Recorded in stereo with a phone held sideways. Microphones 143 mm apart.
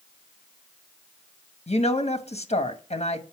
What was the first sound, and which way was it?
A woman speaking, 50° left (ahead or behind).